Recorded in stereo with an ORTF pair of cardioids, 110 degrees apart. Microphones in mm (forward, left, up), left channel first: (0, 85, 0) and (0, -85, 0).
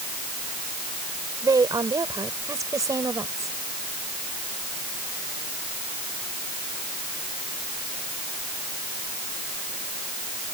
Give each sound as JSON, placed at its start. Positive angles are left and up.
{"t": 1.4, "sound": "a woman speaking", "azimuth_deg": -20}